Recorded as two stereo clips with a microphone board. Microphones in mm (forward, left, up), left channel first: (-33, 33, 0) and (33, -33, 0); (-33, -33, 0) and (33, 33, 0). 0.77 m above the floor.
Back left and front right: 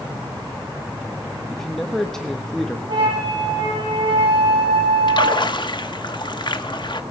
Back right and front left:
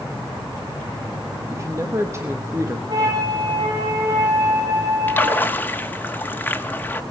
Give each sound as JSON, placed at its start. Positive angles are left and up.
{"t": 1.5, "sound": "a man speaking", "azimuth_deg": 55, "distance_m": 1.2}
{"t": 2.9, "sound": "a flute", "azimuth_deg": -5, "distance_m": 7.5}
{"t": 5.1, "sound": "a splash", "azimuth_deg": 155, "distance_m": 1.0}